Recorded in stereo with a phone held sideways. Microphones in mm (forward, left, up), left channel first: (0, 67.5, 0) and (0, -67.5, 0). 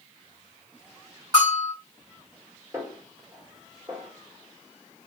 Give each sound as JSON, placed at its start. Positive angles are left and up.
{"t": 1.3, "sound": "a bell", "side_deg": -30, "distance_m": 1.6}
{"t": 2.7, "sound": "a snare drum", "side_deg": -20, "distance_m": 1.3}